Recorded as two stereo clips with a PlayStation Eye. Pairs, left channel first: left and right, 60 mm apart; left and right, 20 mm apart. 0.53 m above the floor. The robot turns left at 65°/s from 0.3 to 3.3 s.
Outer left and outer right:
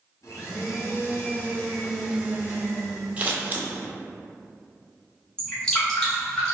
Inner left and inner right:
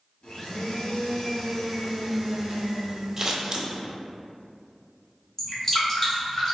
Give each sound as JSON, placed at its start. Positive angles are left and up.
{"t": 0.2, "sound": "a blender", "azimuth_deg": 100, "distance_m": 1.1}
{"t": 3.2, "sound": "scissors", "side_deg": -20, "distance_m": 0.5}
{"t": 5.4, "sound": "dripping", "side_deg": 15, "distance_m": 1.3}